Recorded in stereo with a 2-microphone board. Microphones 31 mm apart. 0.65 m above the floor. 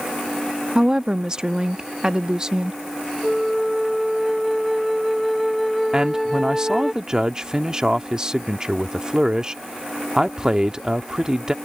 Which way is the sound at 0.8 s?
25° right (ahead or behind).